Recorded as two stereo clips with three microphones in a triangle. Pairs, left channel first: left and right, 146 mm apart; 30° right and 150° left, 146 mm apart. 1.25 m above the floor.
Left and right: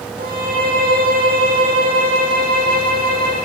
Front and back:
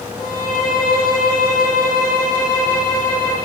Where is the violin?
90° right, 9.5 m.